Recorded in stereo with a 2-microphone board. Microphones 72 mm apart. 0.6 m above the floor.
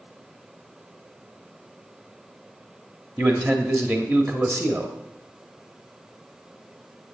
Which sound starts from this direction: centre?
A man speaking, at 3.2 s.